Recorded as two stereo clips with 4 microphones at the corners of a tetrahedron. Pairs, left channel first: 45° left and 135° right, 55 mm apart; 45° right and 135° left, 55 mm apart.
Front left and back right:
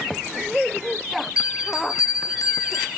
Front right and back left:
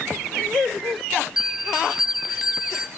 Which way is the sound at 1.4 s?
55° left.